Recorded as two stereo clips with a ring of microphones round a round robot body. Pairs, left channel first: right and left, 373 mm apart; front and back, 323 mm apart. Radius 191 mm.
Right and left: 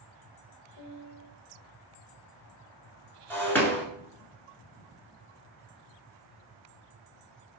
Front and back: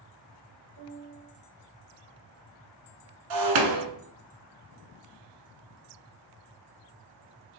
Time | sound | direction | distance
0.8 | a piano | 135° right | 0.8 m
3.3 | breaking glass | 175° right | 0.8 m